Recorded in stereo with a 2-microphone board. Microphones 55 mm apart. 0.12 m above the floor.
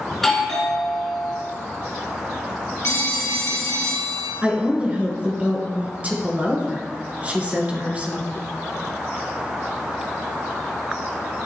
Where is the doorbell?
5° left (ahead or behind), 1.7 m.